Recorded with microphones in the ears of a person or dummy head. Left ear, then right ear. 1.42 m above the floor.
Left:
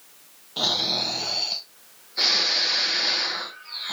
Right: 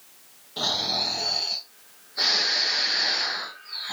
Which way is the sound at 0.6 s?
20° left (ahead or behind).